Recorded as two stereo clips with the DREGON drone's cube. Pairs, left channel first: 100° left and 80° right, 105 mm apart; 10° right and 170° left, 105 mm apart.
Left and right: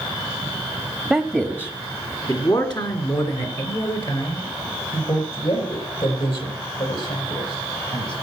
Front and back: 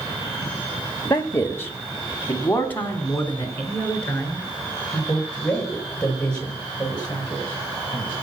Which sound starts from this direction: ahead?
A man speaking, at 1.1 s.